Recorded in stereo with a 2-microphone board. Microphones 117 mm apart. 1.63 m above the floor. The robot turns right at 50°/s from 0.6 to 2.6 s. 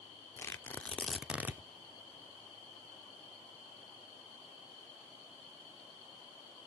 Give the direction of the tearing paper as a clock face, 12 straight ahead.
7 o'clock.